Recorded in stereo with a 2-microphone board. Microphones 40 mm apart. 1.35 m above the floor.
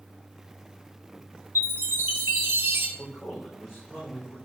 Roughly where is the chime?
Right.